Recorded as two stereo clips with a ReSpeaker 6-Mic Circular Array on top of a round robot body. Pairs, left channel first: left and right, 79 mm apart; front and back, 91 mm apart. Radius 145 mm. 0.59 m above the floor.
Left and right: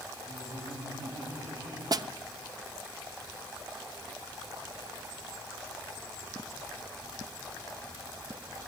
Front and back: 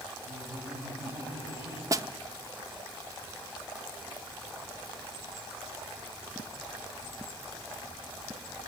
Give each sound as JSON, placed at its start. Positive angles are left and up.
{"t": 0.3, "sound": "laughter", "azimuth_deg": -115, "distance_m": 5.0}
{"t": 1.9, "sound": "a snare drum", "azimuth_deg": -125, "distance_m": 0.8}